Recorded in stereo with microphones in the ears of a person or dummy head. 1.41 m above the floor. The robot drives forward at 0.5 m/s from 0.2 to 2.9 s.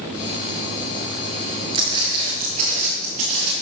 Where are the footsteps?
20° right (ahead or behind), 1.6 m; by 3.5 s 40° right (ahead or behind), 2 m.